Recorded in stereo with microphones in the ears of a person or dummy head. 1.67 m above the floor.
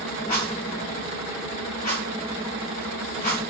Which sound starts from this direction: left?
A rattle, at 0.3 s.